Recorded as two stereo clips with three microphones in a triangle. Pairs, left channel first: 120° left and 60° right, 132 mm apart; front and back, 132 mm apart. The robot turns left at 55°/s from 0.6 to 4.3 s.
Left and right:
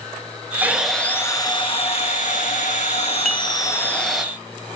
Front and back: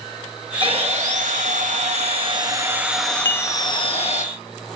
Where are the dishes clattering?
30° left, 0.7 m; by 3.5 s 15° left, 0.7 m.